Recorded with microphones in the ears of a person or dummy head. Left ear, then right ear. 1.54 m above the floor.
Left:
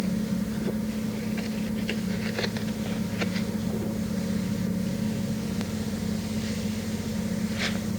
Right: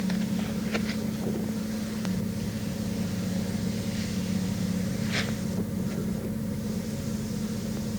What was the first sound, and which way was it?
Only background noise.